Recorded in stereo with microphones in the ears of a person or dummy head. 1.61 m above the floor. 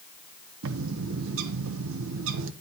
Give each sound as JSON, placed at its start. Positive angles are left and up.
{"t": 0.6, "sound": "a bird", "side_deg": -75, "distance_m": 1.1}